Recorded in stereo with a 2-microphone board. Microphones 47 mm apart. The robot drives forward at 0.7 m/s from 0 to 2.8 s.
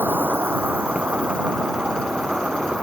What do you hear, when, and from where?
0.0 s an insect: 60° right (ahead or behind); by 2.8 s 20° right (ahead or behind)